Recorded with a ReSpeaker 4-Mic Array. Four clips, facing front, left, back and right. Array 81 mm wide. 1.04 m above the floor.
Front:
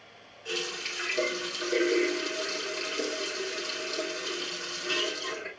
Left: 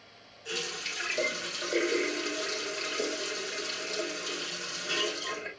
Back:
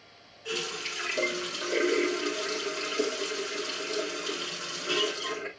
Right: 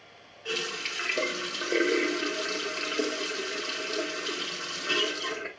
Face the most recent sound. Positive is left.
turn(degrees=-95)